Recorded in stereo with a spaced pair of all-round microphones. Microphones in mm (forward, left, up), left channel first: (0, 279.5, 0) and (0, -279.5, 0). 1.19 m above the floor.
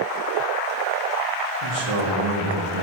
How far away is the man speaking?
About 2.5 m.